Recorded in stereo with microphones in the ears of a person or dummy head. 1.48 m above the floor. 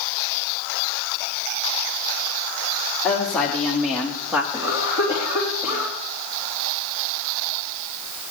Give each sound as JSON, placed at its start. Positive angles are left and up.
{"t": 3.0, "sound": "a woman speaking", "side_deg": 10, "distance_m": 2.5}
{"t": 4.5, "sound": "a cough", "side_deg": -10, "distance_m": 3.5}